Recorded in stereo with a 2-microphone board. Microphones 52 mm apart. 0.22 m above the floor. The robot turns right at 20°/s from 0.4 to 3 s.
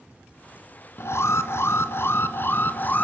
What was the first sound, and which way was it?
An alarm, 95° left.